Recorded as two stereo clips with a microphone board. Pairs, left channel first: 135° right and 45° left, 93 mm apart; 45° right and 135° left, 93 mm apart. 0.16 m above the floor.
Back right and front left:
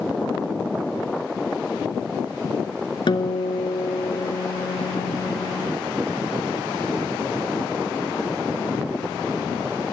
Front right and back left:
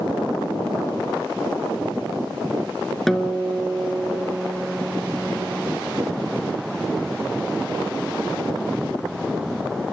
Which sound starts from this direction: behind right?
A guitar, at 3.1 s.